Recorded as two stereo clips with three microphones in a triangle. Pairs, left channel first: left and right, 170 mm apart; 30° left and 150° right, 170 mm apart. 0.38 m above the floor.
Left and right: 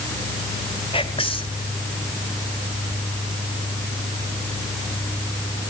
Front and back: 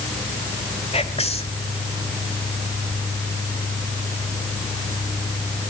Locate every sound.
0.9 s whispering: 55° left, 1.7 m